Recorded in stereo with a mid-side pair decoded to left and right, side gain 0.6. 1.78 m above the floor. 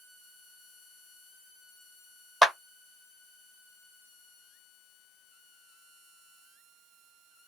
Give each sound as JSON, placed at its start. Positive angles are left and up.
{"t": 2.4, "sound": "a clap", "azimuth_deg": -15, "distance_m": 1.3}